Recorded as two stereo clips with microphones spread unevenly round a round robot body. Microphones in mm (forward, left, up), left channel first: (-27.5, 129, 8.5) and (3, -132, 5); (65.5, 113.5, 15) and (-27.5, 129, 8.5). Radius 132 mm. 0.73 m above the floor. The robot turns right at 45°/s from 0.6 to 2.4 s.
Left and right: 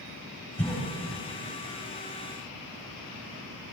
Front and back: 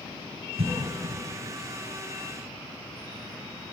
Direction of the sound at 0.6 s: Straight behind.